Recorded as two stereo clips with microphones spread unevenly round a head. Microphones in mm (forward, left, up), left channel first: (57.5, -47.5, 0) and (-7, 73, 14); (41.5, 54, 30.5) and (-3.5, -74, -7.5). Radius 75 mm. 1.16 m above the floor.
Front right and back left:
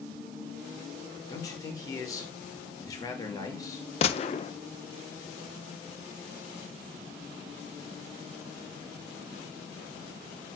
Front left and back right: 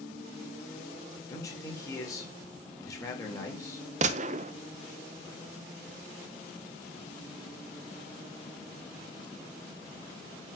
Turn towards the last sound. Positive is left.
turn(degrees=-105)